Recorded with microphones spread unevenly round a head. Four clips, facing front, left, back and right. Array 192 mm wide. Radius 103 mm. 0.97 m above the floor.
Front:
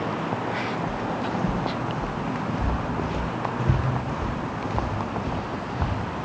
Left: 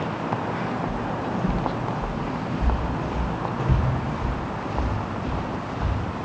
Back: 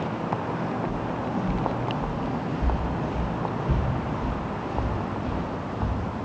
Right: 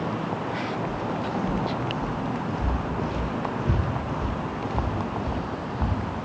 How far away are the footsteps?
About 2.5 m.